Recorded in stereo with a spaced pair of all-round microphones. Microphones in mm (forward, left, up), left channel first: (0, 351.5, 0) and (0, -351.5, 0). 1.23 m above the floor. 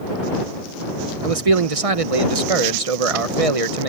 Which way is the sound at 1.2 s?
50° right (ahead or behind).